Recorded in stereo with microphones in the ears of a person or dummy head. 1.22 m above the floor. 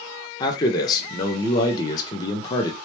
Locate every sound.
0.4 s a man speaking: 15° left (ahead or behind), 0.5 m